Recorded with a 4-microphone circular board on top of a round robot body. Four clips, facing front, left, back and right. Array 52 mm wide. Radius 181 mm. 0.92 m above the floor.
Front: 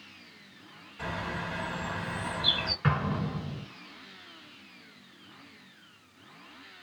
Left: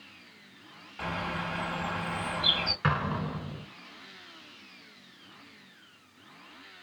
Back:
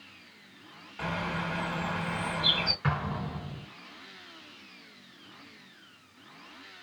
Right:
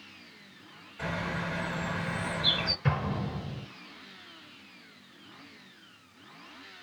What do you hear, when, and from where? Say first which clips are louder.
1.0 s a bird: even, back 2 dB; 135° left, 2.0 m
2.8 s an explosion: left 2 dB, front 2 dB; 80° left, 1.7 m